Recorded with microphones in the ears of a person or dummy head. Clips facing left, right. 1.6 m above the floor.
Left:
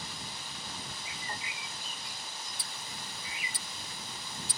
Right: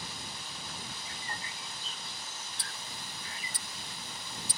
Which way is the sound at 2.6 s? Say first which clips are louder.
Even; 40° right (ahead or behind).